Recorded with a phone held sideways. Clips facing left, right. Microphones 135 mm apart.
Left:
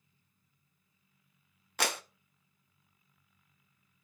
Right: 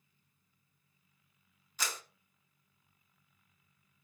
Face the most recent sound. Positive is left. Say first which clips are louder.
# left 8 dB
turn(degrees=70)  # may be behind; listen again after turning